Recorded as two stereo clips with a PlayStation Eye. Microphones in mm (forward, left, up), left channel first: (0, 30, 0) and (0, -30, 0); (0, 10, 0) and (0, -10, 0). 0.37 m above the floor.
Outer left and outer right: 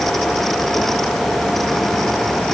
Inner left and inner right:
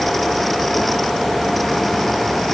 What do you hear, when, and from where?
Only background noise.